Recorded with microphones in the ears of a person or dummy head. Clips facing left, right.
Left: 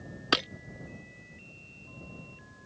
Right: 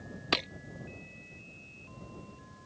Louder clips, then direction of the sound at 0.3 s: Left 3 dB; 10° left (ahead or behind).